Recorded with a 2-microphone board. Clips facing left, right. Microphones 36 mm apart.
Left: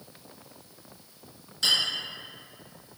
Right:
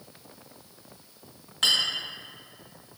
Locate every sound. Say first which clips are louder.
1.6 s a clink: right 2 dB; 50° right (ahead or behind), 1.2 m